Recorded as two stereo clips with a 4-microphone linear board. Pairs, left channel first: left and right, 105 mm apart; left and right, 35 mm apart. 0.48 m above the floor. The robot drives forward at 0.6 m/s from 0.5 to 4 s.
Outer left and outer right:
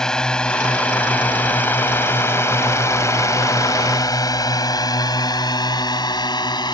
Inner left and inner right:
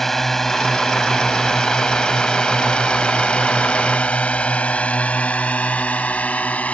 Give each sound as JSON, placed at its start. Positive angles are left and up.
{"t": 0.0, "sound": "a drone", "side_deg": 5}